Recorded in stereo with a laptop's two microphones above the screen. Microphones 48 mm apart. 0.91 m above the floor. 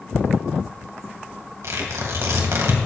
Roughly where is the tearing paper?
Right.